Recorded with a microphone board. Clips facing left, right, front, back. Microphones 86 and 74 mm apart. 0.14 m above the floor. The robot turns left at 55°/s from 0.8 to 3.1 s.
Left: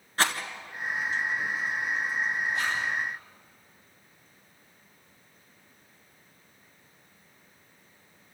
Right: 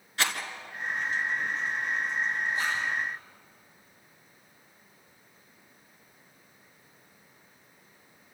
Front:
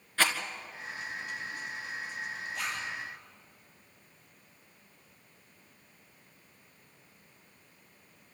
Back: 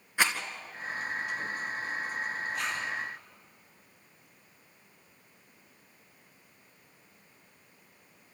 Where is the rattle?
115° left, 1.7 m.